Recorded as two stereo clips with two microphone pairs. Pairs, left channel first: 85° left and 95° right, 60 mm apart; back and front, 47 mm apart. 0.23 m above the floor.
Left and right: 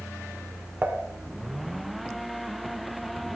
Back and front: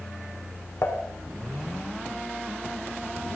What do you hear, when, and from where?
0.8 s dishes clattering: 155° right, 1.3 m